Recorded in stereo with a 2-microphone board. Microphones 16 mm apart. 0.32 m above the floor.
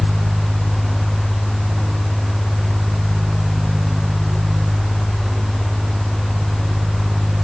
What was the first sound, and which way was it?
Only background noise.